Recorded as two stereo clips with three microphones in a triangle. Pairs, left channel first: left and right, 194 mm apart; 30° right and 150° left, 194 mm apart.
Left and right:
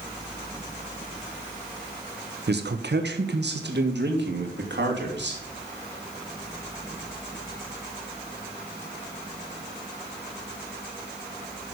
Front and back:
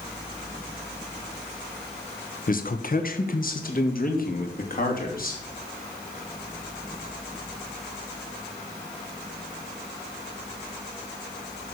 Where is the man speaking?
70° right, 1.0 m.